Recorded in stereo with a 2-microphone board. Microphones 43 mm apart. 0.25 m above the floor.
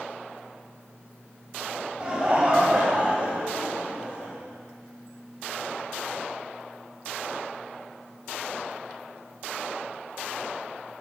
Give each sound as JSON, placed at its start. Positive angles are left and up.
{"t": 2.0, "sound": "laughter", "side_deg": -20, "distance_m": 1.0}